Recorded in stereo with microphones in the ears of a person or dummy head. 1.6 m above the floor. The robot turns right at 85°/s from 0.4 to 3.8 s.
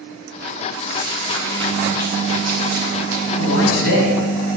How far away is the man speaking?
About 4 m.